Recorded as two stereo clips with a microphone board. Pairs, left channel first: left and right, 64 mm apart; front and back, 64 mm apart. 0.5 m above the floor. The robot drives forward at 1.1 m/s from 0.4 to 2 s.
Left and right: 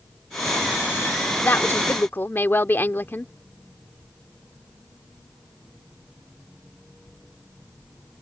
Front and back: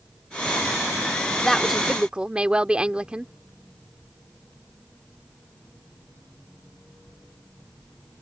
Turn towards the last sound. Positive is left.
turn(degrees=115)